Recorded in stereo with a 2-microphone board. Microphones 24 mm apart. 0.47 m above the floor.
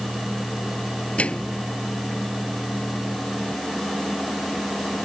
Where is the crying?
I don't hear crying.